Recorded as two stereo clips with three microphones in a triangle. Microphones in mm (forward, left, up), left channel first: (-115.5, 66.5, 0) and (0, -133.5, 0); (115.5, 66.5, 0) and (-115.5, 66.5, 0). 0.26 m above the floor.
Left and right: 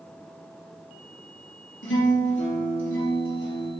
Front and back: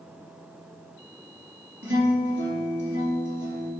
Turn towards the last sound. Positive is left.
turn(degrees=150)